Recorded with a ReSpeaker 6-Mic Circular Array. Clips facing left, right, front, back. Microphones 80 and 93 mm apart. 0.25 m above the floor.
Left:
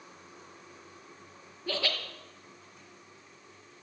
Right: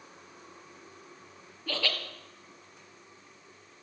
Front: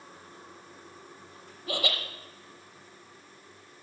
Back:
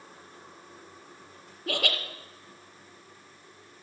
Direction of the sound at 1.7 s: 160° left.